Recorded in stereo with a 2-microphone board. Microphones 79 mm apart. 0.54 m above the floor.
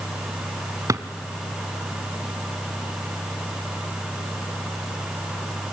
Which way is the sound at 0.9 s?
45° right (ahead or behind).